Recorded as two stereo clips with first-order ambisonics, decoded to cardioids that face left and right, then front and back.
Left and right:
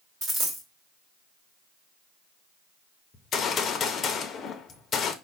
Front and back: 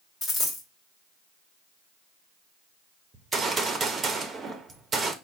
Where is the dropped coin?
60° right, 1.6 m.